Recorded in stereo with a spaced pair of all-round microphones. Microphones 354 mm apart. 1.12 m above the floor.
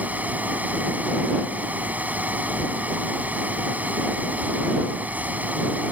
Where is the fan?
5° right (ahead or behind).